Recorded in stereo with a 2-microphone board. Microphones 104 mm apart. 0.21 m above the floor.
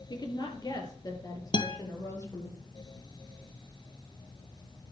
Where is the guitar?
50° left (ahead or behind), 1.4 m.